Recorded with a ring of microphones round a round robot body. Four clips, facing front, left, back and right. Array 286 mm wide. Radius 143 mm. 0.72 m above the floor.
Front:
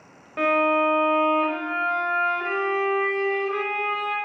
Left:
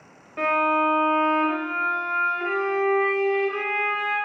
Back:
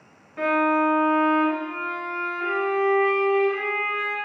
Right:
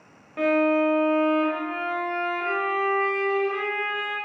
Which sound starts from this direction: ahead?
A violin, at 0.4 s.